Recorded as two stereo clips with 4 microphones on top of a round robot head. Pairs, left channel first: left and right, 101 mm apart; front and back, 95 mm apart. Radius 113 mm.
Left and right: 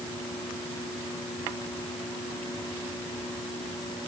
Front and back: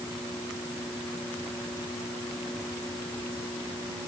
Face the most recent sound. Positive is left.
No sound to turn to.